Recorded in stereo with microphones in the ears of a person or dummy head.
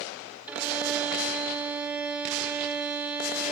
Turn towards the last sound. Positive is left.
turn(degrees=-5)  # may be behind; listen again after turning